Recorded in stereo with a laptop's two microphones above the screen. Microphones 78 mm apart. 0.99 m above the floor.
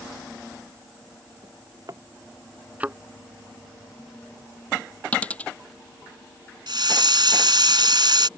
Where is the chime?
I don't hear a chime.